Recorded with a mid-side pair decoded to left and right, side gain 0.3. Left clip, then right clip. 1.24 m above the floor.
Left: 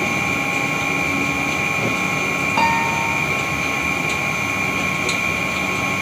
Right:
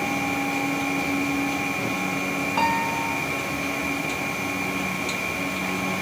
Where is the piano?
45° left.